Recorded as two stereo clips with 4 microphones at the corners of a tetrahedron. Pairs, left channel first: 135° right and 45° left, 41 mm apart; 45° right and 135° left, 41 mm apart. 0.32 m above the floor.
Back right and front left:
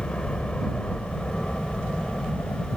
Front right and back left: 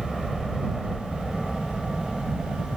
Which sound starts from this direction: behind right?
A helicopter, at 0.0 s.